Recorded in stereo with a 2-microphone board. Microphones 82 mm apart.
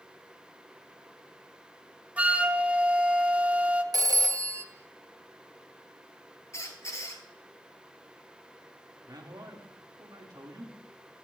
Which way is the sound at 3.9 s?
50° right (ahead or behind).